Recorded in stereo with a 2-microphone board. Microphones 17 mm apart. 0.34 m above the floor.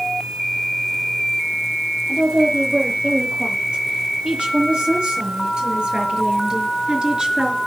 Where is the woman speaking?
75° right (ahead or behind), 8 m; by 7.6 s 60° right (ahead or behind), 4 m.